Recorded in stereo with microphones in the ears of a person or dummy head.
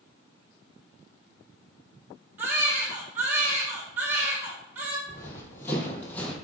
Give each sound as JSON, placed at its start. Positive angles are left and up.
{"t": 2.4, "sound": "a baby crying", "side_deg": -15, "distance_m": 2.0}
{"t": 5.1, "sound": "running footsteps", "side_deg": 20, "distance_m": 2.5}